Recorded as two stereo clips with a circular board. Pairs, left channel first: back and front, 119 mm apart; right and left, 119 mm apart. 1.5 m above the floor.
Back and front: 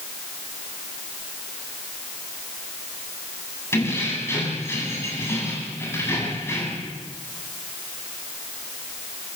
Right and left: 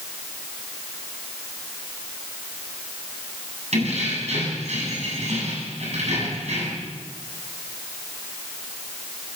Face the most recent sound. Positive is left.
turn(degrees=110)